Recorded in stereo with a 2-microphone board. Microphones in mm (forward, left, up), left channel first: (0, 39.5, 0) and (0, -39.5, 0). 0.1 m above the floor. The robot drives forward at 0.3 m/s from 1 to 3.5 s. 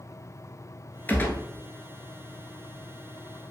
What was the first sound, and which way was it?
A gunshot, 25° left (ahead or behind).